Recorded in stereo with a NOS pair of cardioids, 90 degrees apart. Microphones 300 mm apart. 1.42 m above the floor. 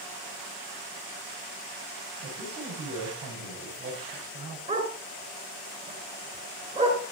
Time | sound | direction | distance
2.2 | a man speaking | 50° right | 8.5 m
4.7 | a dog barking | 25° right | 5.5 m